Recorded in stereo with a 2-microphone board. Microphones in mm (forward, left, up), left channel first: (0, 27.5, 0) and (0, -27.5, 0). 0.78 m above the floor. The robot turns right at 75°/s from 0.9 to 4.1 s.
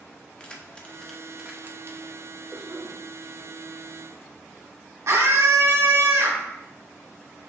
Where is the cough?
155° right, 2 m; by 3.0 s 120° right, 2 m.